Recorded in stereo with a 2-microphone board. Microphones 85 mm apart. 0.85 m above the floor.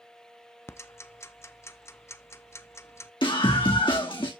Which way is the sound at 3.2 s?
75° left (ahead or behind).